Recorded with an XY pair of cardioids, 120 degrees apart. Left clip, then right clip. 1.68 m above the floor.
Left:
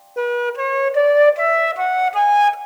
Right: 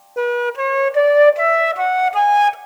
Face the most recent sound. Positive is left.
turn(degrees=-10)